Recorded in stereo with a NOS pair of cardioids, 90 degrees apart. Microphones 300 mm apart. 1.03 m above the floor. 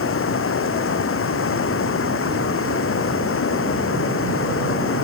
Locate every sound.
0.0 s running water: 45° left